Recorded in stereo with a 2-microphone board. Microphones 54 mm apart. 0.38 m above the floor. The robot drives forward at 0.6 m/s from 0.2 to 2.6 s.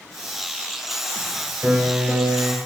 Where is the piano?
30° right (ahead or behind), 6 m.